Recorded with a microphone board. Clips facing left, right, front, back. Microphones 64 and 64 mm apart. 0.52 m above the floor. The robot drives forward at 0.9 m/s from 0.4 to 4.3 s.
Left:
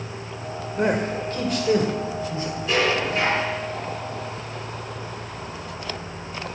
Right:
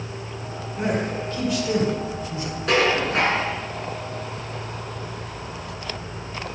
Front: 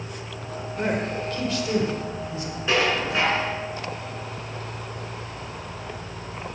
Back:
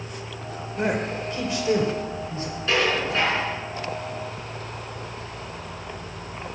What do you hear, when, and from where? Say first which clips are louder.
0.8 s a man speaking: left 2 dB, back 1 dB; 95° left, 2.0 m; by 2.5 s 135° left, 2.5 m
2.7 s dishes clattering: right 2 dB, even; 75° right, 4.5 m; by 3.5 s 85° right, 4 m